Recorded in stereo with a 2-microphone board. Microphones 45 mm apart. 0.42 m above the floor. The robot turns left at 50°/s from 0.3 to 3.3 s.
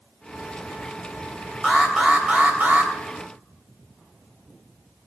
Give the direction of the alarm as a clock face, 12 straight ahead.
12 o'clock.